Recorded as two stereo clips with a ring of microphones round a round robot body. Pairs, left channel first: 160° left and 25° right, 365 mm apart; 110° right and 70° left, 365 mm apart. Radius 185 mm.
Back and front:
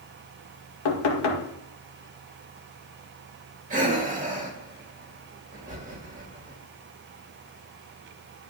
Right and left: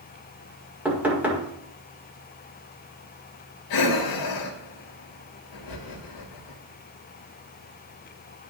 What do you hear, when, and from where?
0.8 s knocking: 155° left, 1.6 m
3.7 s breathing: 90° right, 1.7 m